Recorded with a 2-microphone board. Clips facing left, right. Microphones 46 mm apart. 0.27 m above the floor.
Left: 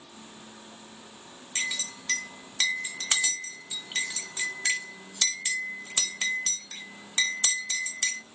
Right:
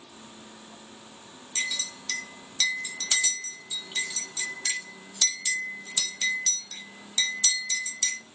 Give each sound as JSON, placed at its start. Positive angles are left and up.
{"t": 1.6, "sound": "a clink", "side_deg": 35, "distance_m": 1.0}